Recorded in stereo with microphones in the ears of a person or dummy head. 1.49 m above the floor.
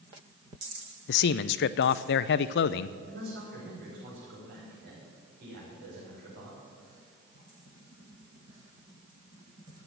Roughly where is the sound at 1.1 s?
Left.